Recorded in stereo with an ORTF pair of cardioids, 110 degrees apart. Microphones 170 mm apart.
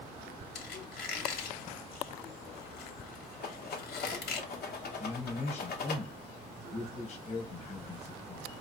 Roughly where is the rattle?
Ahead left.